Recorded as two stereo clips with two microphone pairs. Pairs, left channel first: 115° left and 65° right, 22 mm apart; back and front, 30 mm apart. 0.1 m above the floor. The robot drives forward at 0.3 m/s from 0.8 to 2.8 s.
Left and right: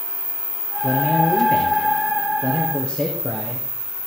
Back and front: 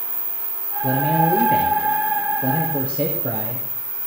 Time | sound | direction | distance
0.8 | a man speaking | 155° left | 2.0 m